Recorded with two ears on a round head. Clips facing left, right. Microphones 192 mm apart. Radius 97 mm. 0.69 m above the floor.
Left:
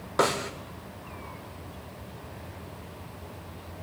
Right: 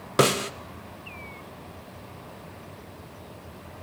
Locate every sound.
0.2 s a snare drum: 40° right (ahead or behind), 0.5 m